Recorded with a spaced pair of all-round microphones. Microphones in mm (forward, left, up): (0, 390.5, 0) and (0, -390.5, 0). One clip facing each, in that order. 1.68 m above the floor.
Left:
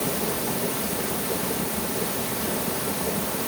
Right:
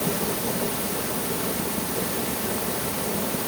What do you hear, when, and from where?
Only background noise.